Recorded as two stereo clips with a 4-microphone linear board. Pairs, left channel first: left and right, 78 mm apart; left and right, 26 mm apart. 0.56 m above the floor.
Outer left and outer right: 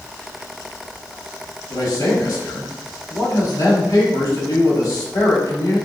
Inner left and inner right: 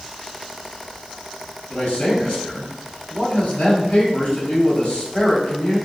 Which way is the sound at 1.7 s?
45° left (ahead or behind).